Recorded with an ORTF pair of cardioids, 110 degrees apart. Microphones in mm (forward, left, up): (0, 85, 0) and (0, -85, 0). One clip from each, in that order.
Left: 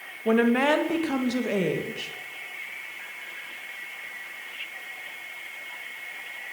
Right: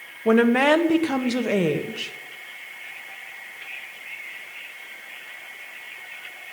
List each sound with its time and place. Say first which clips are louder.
0.2 s a woman speaking: right 4 dB; 25° right, 1.9 m